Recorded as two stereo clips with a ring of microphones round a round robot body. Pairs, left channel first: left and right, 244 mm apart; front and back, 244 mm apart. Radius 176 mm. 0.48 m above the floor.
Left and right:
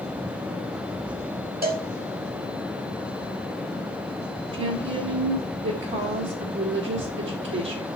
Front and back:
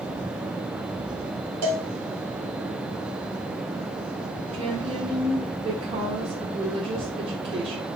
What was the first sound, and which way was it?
A cowbell, 145° right.